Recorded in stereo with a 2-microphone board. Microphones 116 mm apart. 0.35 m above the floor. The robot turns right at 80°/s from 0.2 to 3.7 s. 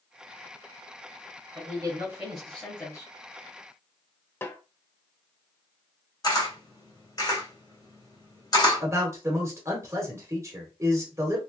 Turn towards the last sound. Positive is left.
turn(degrees=-25)  # may be behind; listen again after turning